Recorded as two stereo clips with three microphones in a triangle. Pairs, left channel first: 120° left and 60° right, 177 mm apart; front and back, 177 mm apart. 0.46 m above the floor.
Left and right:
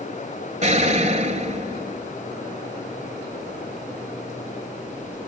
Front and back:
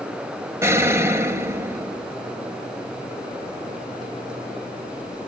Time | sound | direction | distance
0.6 | an explosion | 105° right | 1.6 m